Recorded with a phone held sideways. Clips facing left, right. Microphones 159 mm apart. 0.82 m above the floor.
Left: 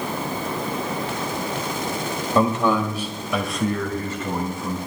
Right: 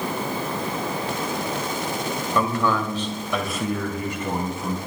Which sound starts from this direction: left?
A man speaking, at 2.4 s.